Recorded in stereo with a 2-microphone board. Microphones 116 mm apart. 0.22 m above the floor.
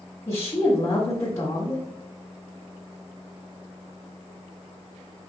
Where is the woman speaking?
25° left (ahead or behind), 1.4 m.